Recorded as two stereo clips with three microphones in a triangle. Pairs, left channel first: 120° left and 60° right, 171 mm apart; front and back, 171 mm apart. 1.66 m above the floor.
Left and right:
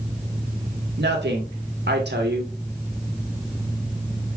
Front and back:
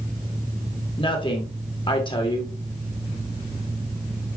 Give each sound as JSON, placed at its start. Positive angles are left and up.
{"t": 1.0, "sound": "a woman speaking", "azimuth_deg": -60, "distance_m": 1.9}